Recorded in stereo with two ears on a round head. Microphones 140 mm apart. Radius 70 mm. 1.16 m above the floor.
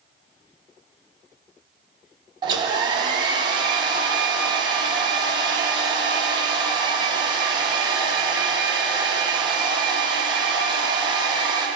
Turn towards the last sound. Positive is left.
turn(degrees=-30)  # may be behind; listen again after turning